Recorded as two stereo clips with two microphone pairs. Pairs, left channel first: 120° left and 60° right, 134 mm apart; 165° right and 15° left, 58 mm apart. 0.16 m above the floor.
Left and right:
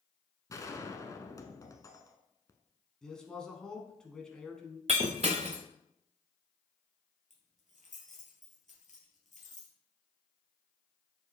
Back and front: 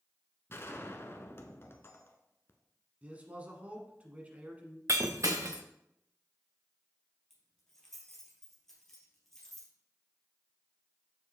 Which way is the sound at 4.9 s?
20° right.